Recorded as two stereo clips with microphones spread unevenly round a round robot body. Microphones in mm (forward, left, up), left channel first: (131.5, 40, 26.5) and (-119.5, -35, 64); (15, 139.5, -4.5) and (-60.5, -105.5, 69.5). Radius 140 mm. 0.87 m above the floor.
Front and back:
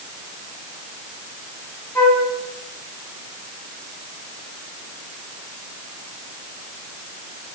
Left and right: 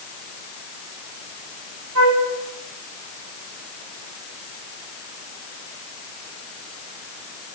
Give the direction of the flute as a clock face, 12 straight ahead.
2 o'clock.